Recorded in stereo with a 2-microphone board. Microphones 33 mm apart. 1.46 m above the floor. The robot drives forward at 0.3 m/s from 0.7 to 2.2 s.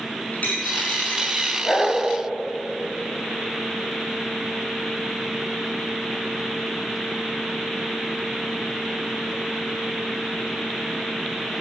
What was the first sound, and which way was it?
A dropped coin, 50° left (ahead or behind).